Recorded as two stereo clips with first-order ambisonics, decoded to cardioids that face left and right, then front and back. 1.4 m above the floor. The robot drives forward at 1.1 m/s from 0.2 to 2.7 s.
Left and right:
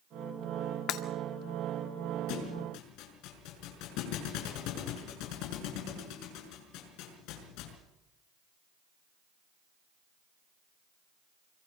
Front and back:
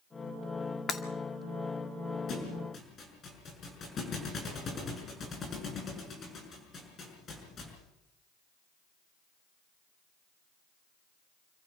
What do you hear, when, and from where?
0.9 s breaking glass: 60° left, 1.9 m
2.3 s a thud: 60° left, 6 m; by 7.8 s 65° left, 6 m